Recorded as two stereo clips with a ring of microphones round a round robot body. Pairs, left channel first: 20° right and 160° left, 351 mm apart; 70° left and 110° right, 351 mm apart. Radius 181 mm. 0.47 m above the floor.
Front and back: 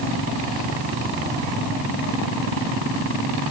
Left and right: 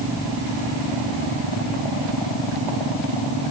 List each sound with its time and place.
Only background noise.